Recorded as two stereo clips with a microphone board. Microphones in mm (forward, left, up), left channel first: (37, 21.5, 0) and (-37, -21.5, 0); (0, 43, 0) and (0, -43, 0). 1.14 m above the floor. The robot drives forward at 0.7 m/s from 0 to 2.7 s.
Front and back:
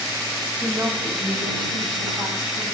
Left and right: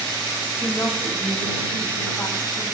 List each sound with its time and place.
0.6 s a woman speaking: 150° left, 2.5 m; by 2.6 s 160° left, 4 m